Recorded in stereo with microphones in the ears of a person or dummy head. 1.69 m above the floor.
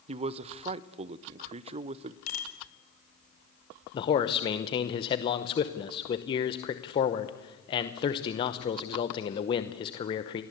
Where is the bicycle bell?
45° left (ahead or behind), 4.5 m.